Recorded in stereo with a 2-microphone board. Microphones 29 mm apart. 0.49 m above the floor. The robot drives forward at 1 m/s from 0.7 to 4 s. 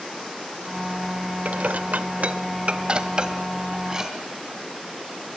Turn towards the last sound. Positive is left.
turn(degrees=-20)  # may be behind; listen again after turning